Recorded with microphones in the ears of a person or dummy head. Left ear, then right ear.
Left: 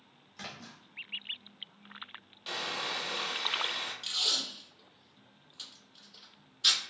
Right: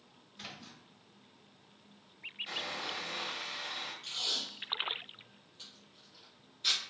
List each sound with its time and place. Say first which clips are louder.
0.4 s a splash: left 3 dB; 40° left (ahead or behind), 0.7 m
2.5 s sawing: left 5 dB; 35° left (ahead or behind), 1.0 m
4.0 s tape being pulled: left 5 dB; 35° left (ahead or behind), 1.7 m